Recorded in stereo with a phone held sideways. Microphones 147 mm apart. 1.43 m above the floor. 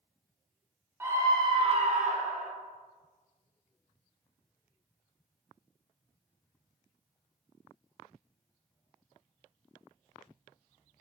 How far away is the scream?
About 0.7 m.